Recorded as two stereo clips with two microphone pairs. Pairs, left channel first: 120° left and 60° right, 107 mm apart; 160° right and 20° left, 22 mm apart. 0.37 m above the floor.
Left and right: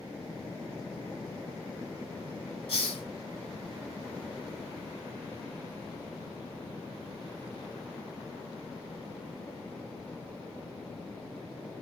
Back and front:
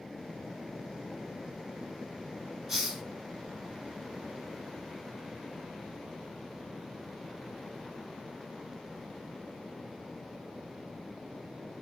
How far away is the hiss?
About 0.9 m.